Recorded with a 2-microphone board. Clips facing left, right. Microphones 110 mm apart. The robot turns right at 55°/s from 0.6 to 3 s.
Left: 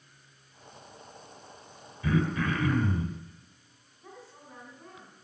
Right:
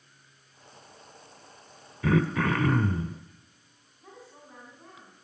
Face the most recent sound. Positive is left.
turn(degrees=-5)  # may be behind; listen again after turning